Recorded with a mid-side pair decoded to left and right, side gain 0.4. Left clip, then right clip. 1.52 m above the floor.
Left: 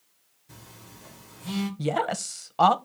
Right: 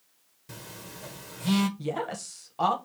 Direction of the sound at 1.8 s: 55° left.